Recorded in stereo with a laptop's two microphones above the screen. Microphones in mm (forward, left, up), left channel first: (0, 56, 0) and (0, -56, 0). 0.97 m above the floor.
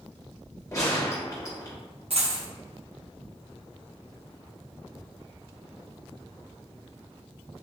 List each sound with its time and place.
0.7 s a gunshot: 25° left (ahead or behind), 1.2 m
2.1 s a dropped coin: 60° right (ahead or behind), 0.9 m